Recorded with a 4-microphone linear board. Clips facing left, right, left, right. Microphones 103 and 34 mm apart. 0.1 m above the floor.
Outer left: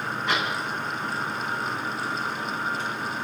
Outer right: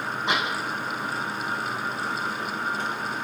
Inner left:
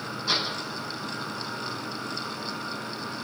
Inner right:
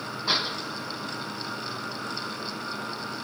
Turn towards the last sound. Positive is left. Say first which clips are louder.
# outer right 1 dB, inner right 1 dB
turn(degrees=-25)  # may be behind; listen again after turning